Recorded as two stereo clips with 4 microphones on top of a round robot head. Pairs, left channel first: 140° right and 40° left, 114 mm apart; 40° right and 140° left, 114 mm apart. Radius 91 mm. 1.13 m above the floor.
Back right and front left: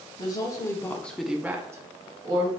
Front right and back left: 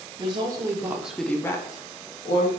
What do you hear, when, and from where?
0.2 s a woman speaking: 175° left, 0.8 m; by 2.5 s 10° right, 1.0 m